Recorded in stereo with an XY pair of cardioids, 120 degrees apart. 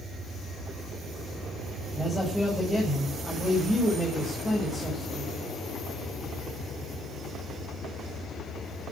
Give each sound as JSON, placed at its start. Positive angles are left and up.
{"t": 1.9, "sound": "a man speaking", "azimuth_deg": 0, "distance_m": 7.5}